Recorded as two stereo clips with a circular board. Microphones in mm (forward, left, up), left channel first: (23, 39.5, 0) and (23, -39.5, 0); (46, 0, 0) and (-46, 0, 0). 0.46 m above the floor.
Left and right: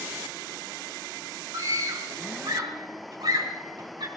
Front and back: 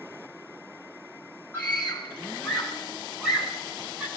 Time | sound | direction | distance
1.5 | a scream | 75° right | 2.5 m